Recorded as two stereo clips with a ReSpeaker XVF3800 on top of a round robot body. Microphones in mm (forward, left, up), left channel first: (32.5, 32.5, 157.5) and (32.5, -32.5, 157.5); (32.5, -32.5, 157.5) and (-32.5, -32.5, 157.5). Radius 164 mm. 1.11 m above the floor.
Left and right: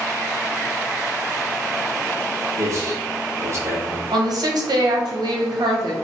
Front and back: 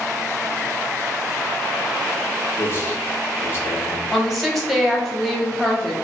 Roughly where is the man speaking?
Ahead right.